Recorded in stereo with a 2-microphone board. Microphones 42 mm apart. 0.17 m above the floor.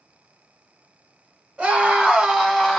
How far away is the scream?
About 1.4 m.